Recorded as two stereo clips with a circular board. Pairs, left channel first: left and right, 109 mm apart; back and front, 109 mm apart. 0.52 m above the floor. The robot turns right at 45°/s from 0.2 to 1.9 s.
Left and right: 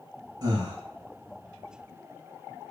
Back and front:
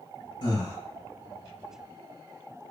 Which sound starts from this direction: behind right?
Breathing, at 0.4 s.